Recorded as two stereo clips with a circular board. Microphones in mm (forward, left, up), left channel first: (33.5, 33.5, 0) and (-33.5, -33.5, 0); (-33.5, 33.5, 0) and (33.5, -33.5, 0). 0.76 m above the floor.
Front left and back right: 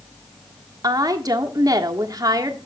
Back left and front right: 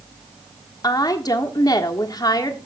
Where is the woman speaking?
Straight behind, 1.5 m.